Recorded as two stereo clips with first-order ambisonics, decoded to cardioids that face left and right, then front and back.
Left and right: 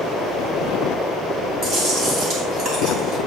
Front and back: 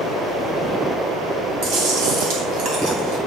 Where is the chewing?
160° right, 2.5 m.